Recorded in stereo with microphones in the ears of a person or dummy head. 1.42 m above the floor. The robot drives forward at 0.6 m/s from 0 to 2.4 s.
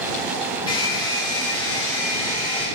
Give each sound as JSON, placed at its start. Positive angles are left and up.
{"t": 0.7, "sound": "a hair dryer", "side_deg": 30, "distance_m": 1.6}